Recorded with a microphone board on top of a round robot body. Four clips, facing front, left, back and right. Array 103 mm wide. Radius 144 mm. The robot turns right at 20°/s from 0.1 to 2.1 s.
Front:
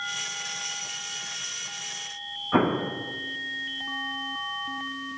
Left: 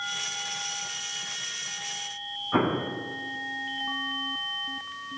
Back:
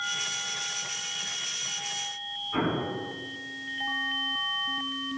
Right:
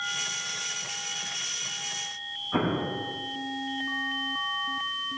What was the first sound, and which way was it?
An explosion, 15° left.